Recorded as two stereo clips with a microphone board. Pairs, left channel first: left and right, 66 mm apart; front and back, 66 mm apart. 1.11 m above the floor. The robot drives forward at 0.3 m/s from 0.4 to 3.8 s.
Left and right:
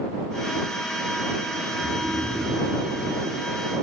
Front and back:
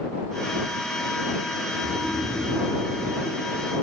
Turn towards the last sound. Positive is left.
turn(degrees=-160)